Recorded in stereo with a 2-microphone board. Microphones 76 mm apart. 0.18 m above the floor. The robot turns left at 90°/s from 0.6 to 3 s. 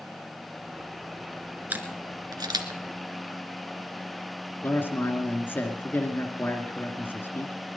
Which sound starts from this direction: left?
A man speaking, at 4.6 s.